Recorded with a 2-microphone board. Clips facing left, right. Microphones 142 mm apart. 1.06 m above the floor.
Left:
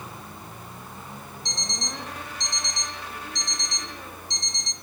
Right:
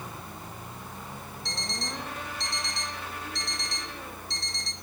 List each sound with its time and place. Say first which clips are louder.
1.4 s an alarm clock: even; 20° left (ahead or behind), 1.3 m